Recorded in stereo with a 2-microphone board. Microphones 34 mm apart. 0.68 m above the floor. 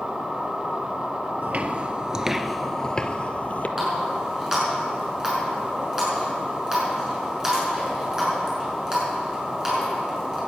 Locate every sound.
1.4 s footsteps: 50° right (ahead or behind), 0.9 m; by 3.7 s 45° left (ahead or behind), 1.1 m
3.8 s a running tap: 15° right (ahead or behind), 5.5 m